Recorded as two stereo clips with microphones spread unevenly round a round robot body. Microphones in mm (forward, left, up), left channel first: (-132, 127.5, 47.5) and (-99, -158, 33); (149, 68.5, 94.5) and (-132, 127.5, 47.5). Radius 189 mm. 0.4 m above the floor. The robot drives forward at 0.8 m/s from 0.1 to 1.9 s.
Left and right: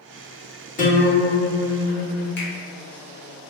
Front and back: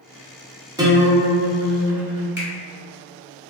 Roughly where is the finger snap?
Behind left.